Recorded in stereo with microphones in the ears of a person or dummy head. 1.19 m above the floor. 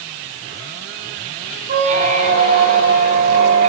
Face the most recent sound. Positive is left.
turn(degrees=-45)  # may be behind; listen again after turning